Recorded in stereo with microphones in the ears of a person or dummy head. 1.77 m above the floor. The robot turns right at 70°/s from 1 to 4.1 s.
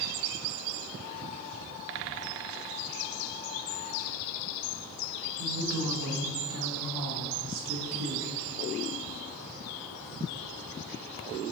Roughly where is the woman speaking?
Right.